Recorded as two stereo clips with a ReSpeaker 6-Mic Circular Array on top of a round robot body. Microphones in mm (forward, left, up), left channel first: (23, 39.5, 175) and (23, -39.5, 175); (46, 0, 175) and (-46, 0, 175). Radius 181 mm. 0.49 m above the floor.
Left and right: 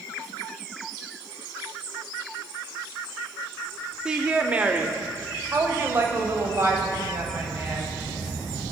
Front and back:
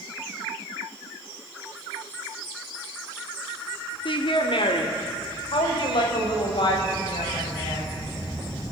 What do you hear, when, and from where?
4.0 s a woman speaking: 10° right, 2 m; by 7.9 s 35° right, 5.5 m